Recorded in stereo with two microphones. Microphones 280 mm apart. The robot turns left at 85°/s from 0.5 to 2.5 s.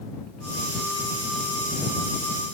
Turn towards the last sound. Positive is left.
No sound to turn to.